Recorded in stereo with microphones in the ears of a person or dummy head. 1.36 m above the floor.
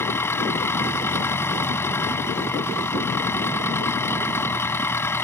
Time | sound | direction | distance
0.0 | an engine running | 15° left (ahead or behind) | ?